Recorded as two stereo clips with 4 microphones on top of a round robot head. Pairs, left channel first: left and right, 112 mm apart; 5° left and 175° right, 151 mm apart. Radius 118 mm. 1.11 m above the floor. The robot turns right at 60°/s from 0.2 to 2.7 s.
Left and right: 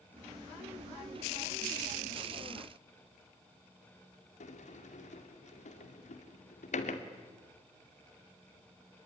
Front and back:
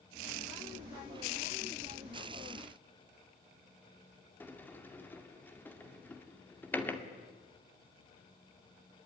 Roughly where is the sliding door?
Left.